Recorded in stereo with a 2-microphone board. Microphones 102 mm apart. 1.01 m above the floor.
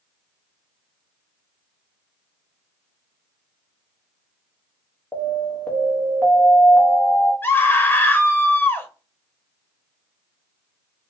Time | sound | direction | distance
5.1 | an alarm | 15° left (ahead or behind) | 1.3 m
7.4 | a scream | 20° left (ahead or behind) | 0.7 m